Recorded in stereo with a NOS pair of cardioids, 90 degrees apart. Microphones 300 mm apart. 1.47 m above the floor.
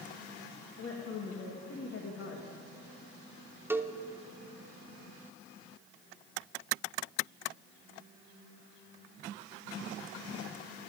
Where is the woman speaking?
45° left, 1.8 m.